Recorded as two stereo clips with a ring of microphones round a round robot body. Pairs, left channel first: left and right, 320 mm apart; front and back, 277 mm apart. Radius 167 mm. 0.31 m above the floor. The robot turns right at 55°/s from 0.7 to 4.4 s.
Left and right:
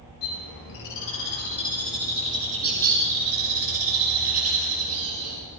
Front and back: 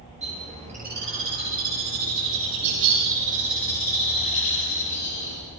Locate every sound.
0.2 s a bird: 115° left, 7.5 m; by 5.4 s 45° right, 7.5 m